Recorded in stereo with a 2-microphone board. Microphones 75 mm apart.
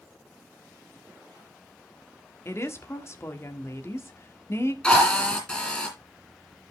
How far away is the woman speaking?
About 1.3 m.